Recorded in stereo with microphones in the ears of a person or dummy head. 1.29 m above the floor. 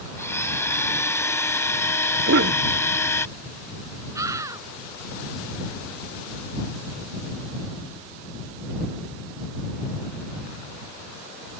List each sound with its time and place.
0.2 s a blender: 10° left (ahead or behind)
2.3 s a cough: 55° right (ahead or behind)
4.2 s a scream: 10° right (ahead or behind)